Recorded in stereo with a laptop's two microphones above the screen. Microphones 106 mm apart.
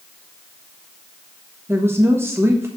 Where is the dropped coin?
No dropped coin in this recording.